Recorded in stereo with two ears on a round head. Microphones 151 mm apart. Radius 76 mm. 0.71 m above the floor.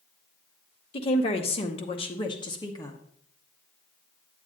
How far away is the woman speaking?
About 0.9 m.